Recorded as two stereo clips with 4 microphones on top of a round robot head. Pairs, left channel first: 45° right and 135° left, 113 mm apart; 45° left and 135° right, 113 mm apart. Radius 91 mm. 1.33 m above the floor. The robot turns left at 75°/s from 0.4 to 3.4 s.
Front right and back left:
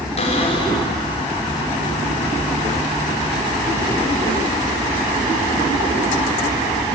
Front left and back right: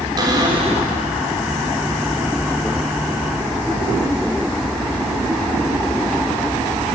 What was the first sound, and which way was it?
A cupboard door, 80° right.